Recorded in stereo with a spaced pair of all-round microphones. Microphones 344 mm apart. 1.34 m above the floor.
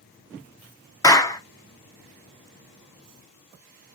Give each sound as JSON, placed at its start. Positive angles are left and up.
{"t": 1.0, "sound": "a clap", "side_deg": 10, "distance_m": 0.5}